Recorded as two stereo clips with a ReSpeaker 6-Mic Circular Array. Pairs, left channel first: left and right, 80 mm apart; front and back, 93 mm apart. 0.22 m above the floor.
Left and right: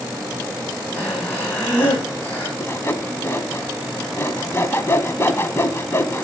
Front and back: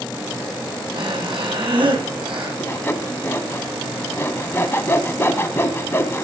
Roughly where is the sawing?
Ahead left.